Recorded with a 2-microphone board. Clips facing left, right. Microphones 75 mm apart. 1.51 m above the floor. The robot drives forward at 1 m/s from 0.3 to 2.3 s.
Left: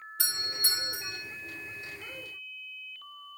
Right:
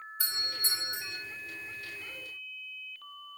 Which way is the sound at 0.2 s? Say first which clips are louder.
Left 2 dB; 85° left.